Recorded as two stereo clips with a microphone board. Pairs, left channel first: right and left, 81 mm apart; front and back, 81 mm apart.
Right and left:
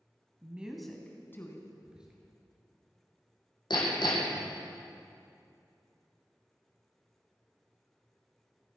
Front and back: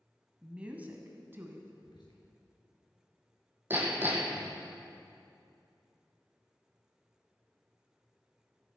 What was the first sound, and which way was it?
A woman speaking, 115° left.